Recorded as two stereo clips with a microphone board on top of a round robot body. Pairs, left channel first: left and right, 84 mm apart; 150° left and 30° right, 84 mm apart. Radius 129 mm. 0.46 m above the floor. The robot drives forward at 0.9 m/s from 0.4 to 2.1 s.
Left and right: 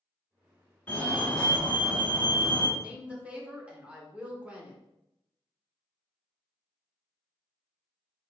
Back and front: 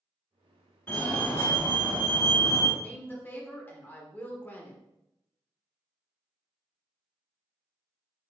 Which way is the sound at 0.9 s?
130° left.